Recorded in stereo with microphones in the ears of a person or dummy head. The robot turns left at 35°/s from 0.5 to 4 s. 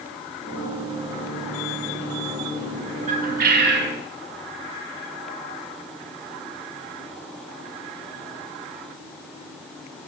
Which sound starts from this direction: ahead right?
A bird, at 3.1 s.